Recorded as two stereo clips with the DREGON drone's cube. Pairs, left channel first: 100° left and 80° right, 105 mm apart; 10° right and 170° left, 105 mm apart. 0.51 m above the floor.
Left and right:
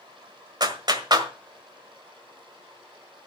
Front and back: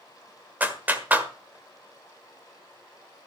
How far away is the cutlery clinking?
No cutlery clinking in this recording.